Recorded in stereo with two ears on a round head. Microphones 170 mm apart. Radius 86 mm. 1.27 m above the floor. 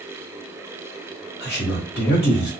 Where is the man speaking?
60° left (ahead or behind), 1.7 m.